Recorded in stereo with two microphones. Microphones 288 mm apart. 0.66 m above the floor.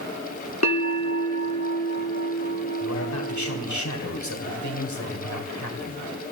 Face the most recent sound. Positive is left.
turn(degrees=75)  # may be behind; listen again after turning